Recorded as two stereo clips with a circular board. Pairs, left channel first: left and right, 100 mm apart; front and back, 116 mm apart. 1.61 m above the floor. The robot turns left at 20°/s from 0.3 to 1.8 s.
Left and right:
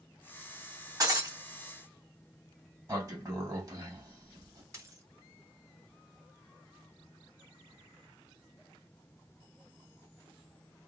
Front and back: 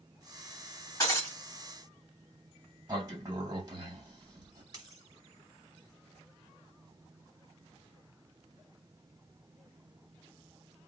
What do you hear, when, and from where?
1.0 s breaking glass: 50° right, 2 m; by 1.4 s 60° right, 2 m
2.9 s a sliding door: 130° right, 1.6 m
4.7 s a dropped coin: 135° right, 2 m